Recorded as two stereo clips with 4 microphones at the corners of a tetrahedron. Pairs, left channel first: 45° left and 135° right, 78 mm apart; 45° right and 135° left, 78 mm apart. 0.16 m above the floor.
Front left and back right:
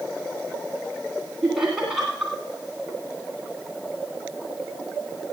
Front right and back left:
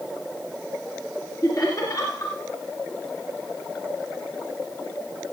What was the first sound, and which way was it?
Laughter, 55° right.